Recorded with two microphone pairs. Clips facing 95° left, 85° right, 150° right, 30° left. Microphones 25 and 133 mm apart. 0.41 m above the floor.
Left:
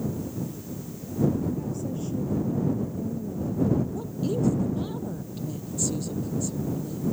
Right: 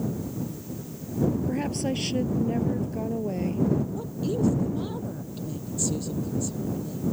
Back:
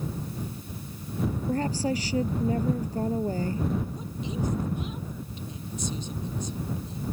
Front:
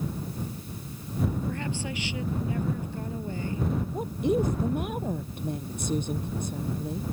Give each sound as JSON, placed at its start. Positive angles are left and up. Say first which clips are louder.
{"t": 1.5, "sound": "a woman speaking", "louder": "right 3 dB, back 6 dB", "azimuth_deg": -95}
{"t": 3.9, "sound": "a woman speaking", "louder": "even, front 8 dB", "azimuth_deg": 0}